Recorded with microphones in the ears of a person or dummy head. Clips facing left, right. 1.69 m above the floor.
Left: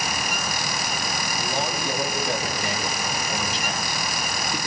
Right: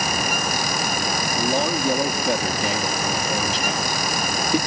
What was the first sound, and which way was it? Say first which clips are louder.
A man speaking: right 7 dB; 70° right (ahead or behind).